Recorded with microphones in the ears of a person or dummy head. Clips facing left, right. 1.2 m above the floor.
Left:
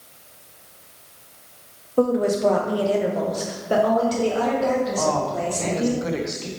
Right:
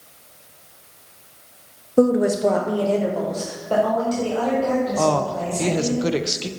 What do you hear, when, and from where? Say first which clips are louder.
2.0 s a woman speaking: right 3 dB; 25° right (ahead or behind), 0.6 m; by 6.0 s 35° left (ahead or behind), 2.5 m
5.0 s a woman speaking: right 2 dB; 45° right (ahead or behind), 0.5 m